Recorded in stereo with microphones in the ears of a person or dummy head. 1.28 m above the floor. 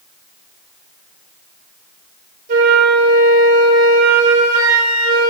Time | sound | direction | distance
2.5 | a flute | 50° right (ahead or behind) | 7.5 m